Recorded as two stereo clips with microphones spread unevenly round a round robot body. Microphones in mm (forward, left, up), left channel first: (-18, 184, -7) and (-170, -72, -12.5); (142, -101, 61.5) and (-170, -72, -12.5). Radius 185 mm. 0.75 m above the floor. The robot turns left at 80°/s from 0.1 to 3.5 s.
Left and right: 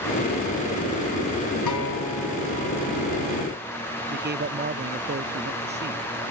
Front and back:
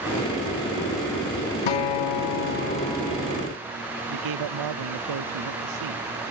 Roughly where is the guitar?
Ahead.